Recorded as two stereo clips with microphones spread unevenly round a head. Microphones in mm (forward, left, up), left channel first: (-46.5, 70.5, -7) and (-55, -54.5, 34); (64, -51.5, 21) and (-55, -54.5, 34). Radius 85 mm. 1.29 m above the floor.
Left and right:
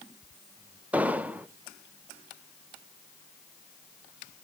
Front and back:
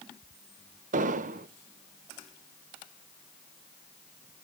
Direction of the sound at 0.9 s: 170° right.